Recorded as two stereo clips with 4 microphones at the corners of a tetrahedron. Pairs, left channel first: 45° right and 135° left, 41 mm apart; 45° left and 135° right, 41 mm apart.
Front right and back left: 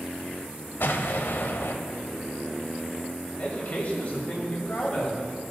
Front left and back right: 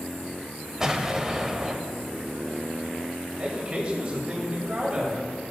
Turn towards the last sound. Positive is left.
turn(degrees=-90)